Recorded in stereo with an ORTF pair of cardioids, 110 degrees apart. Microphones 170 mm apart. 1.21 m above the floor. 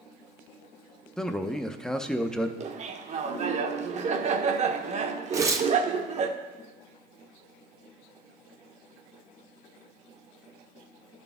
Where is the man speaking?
5° left, 0.5 m.